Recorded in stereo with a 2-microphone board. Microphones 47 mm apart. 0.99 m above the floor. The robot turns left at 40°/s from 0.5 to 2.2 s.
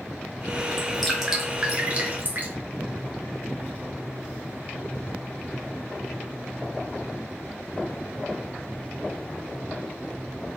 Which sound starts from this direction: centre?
Dripping, at 0.8 s.